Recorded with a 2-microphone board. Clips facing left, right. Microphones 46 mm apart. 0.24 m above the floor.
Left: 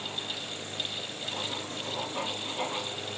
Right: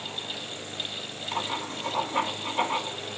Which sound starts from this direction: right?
Writing, at 1.3 s.